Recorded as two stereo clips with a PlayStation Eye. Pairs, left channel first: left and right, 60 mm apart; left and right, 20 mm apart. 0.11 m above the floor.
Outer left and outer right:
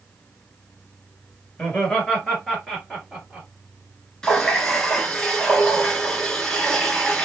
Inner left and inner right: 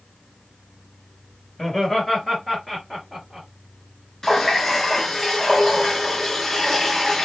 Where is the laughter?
20° left (ahead or behind), 1.7 m; by 3.5 s 15° right (ahead or behind), 1.7 m.